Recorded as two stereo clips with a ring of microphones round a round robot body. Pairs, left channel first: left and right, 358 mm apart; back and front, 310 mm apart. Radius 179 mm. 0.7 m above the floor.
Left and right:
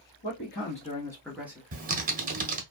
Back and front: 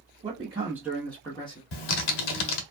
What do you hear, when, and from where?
0.2 s a man speaking: 55° left, 1.1 m; by 1.6 s 155° right, 0.9 m
1.7 s typing on a keyboard: 160° right, 0.6 m